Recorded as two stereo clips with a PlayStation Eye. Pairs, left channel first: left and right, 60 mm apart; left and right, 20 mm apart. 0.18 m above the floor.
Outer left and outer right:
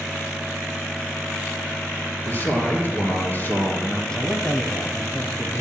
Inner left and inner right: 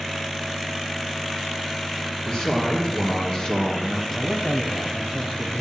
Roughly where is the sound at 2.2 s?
Left.